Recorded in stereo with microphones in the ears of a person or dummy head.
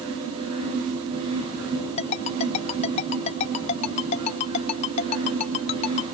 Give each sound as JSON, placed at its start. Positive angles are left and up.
{"t": 2.0, "sound": "a ringtone", "side_deg": 40, "distance_m": 1.0}